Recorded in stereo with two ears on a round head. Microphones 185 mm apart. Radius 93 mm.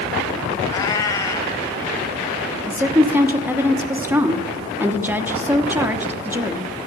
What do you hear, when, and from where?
0.7 s a cat meowing: 15° left (ahead or behind), 1.5 m
2.7 s a woman speaking: 10° right (ahead or behind), 1.2 m